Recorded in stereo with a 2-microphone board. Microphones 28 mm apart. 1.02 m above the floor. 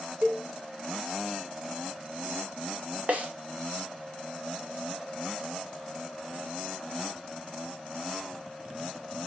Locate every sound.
0.2 s a cowbell: 60° right (ahead or behind), 3.5 m
3.1 s a snare drum: 55° right (ahead or behind), 1.9 m